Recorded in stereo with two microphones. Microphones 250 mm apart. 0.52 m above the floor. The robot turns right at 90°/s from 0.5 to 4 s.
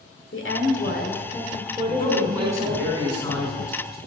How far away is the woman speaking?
About 1.8 m.